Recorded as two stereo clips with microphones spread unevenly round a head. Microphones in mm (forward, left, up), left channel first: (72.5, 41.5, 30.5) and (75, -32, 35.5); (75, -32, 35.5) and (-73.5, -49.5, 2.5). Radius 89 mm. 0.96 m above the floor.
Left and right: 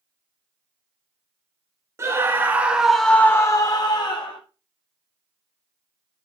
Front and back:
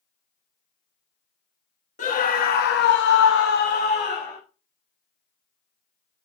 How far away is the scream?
About 1.6 m.